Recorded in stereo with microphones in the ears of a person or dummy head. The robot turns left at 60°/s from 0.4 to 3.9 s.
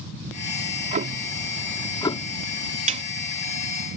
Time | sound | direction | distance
0.6 | ticking | 120° right | ?
2.9 | a snare drum | 35° right (ahead or behind) | ?